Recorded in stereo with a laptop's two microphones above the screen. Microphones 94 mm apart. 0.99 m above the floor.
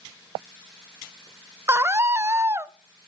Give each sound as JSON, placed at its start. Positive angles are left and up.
{"t": 1.7, "sound": "a scream", "side_deg": -25, "distance_m": 0.5}